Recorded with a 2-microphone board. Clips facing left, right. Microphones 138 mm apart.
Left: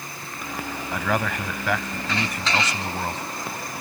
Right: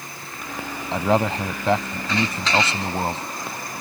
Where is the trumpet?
No trumpet in this recording.